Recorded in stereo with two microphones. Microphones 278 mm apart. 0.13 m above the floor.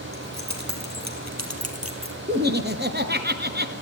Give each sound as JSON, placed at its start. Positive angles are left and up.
{"t": 0.1, "sound": "keys jangling", "side_deg": -70, "distance_m": 3.5}
{"t": 2.3, "sound": "laughter", "side_deg": -35, "distance_m": 1.6}